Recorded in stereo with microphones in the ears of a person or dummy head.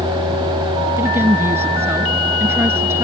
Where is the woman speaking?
10° right (ahead or behind).